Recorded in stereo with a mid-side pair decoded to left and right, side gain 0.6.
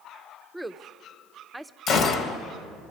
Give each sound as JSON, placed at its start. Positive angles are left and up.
{"t": 0.5, "sound": "a woman speaking", "azimuth_deg": -5, "distance_m": 0.6}
{"t": 1.9, "sound": "a gunshot", "azimuth_deg": 55, "distance_m": 1.4}